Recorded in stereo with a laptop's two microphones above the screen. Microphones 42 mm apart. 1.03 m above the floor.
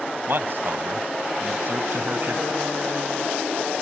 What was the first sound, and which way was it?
A man speaking, 50° right (ahead or behind).